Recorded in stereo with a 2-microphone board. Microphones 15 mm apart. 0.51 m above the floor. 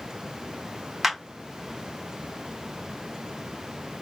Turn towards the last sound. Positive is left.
turn(degrees=-20)  # may be behind; listen again after turning